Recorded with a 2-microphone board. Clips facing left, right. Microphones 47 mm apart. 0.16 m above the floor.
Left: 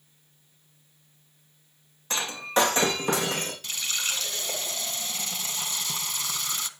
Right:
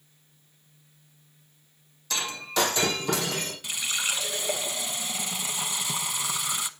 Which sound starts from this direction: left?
Breaking glass, at 2.1 s.